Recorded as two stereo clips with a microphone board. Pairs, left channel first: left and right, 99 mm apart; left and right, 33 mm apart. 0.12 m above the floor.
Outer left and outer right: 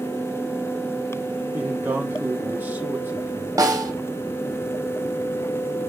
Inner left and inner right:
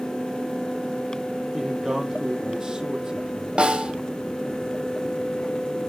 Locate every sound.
1.5 s a man speaking: 20° right (ahead or behind), 3.5 m
3.6 s a snare drum: 35° right (ahead or behind), 3.5 m